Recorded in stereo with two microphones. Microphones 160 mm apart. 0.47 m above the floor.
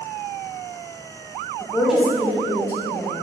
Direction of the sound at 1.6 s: 15° left (ahead or behind).